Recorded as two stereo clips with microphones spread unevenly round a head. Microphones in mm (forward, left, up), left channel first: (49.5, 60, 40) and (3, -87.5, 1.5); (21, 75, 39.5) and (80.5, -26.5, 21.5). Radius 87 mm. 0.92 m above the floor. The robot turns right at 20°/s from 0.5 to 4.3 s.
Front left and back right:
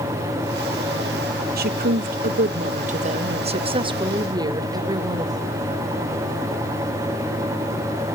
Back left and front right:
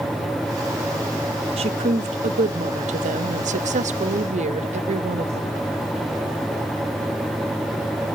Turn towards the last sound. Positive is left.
turn(degrees=-45)